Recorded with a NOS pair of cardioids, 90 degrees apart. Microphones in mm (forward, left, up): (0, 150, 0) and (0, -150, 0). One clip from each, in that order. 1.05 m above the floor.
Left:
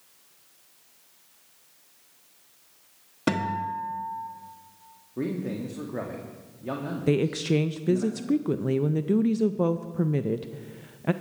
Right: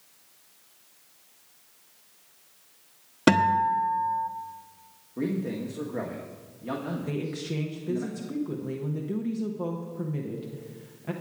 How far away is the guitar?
About 1.1 m.